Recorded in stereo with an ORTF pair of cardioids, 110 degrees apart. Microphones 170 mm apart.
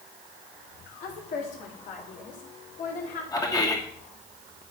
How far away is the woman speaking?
About 3 m.